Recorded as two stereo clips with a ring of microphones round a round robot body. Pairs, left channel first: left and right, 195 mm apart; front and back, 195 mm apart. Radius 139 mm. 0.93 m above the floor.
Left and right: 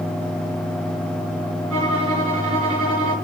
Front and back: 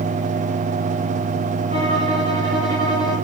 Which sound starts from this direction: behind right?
A violin, at 1.7 s.